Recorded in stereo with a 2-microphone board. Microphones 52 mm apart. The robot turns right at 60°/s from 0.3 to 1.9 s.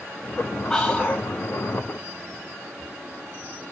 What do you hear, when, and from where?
0.7 s whispering: 5° left, 2 m; by 1.3 s 40° left, 2 m